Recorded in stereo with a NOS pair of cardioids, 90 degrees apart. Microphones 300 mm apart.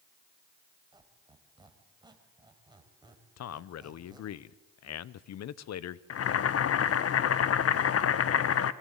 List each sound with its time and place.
0.9 s a squeak: 15° right, 3.5 m
3.4 s a man speaking: 60° left, 1.0 m
6.1 s boiling: 50° left, 1.3 m